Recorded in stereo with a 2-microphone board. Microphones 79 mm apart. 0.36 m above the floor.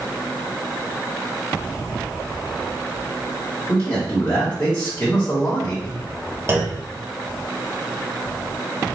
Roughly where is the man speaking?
Left.